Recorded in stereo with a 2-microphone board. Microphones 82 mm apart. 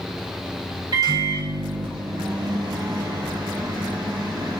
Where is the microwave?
50° right (ahead or behind), 1.1 m.